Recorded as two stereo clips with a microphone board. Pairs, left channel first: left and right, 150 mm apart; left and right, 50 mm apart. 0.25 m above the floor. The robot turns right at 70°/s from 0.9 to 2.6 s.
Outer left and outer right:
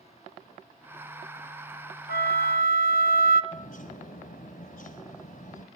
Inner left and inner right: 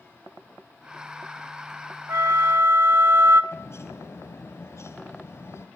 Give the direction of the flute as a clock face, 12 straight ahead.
4 o'clock.